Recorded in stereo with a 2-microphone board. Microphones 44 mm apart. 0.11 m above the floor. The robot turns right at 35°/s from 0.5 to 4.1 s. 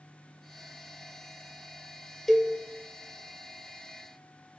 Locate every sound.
2.3 s a cowbell: centre (ahead or behind), 0.5 m; by 2.5 s 10° left (ahead or behind), 0.5 m